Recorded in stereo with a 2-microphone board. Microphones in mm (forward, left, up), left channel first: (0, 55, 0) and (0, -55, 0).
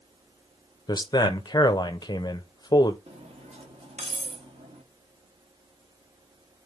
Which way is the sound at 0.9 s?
40° left (ahead or behind).